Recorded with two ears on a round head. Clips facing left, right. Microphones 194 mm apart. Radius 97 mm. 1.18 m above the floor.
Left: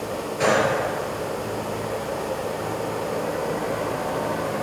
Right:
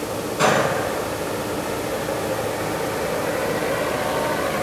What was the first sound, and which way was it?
A gunshot, 70° right (ahead or behind).